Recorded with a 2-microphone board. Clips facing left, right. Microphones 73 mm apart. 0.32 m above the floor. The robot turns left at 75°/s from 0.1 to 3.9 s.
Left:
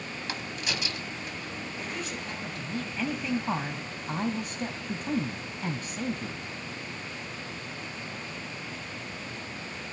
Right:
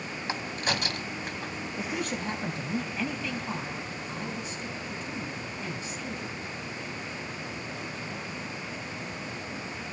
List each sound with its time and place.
0.3 s a crack: 25° right (ahead or behind), 2.0 m; by 1.5 s 45° right (ahead or behind), 2.0 m
1.8 s a woman speaking: 90° right, 1.7 m; by 6.4 s 110° left, 1.7 m